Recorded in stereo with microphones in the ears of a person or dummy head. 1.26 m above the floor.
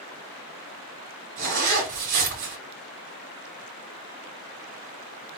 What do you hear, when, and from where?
1.4 s a zipper: 65° right (ahead or behind), 2.5 m